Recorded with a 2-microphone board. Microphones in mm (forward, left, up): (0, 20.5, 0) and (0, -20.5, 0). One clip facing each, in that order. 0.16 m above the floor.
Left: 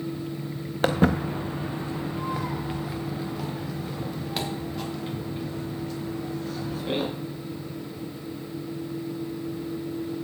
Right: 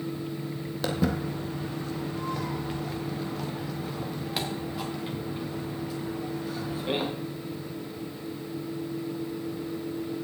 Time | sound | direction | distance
0.8 | footsteps | 50° left (ahead or behind) | 1.2 m